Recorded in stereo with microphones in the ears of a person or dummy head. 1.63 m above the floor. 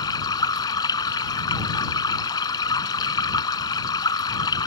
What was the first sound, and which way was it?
Running water, 20° left (ahead or behind).